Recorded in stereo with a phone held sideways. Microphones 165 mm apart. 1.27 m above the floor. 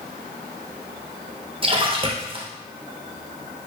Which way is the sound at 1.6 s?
35° right (ahead or behind).